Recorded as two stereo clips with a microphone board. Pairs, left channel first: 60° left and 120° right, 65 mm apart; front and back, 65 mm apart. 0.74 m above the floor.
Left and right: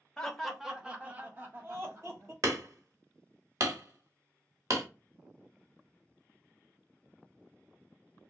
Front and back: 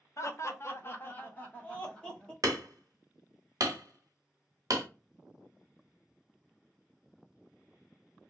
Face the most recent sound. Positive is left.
turn(degrees=-155)